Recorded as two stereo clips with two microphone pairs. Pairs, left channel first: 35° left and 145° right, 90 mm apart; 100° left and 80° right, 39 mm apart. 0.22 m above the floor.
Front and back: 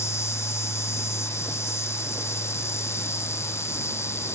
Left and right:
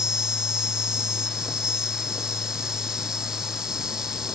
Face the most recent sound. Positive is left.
turn(degrees=-10)